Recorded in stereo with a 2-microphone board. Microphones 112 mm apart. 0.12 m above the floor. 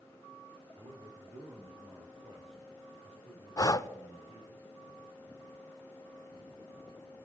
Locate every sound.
0.8 s a man speaking: 50° right (ahead or behind), 3.5 m; by 4.6 s 65° right (ahead or behind), 6 m
3.6 s breathing: 30° left (ahead or behind), 0.5 m